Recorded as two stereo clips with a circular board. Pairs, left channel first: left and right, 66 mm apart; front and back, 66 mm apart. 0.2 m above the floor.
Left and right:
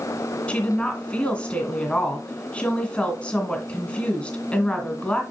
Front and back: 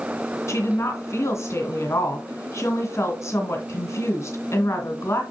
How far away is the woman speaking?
About 1.8 m.